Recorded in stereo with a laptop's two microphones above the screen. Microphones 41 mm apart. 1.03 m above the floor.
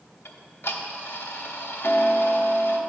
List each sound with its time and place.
0.2 s ticking: 70° left (ahead or behind), 0.8 m